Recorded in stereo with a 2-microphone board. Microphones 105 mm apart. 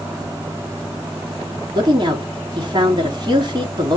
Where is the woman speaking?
40° right (ahead or behind), 2 m.